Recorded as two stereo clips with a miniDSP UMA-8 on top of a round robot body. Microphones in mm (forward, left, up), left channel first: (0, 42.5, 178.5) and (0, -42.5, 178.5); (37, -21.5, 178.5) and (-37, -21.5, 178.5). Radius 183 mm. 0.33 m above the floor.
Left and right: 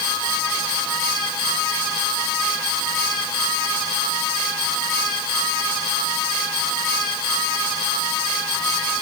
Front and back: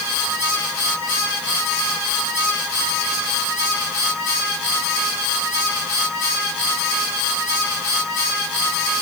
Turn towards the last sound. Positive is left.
No sound to turn to.